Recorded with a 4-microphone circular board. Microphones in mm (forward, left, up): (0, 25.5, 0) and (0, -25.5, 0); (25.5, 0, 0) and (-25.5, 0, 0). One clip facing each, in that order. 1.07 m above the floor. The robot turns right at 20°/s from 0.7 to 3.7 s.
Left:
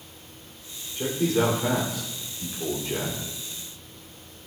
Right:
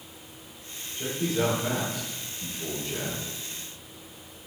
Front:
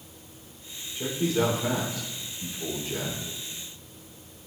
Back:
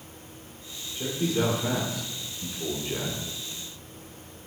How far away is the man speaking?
About 3 m.